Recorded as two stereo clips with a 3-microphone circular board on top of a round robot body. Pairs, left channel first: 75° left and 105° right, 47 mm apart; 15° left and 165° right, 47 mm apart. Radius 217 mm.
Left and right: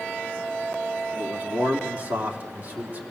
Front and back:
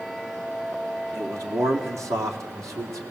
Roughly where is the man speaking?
Behind.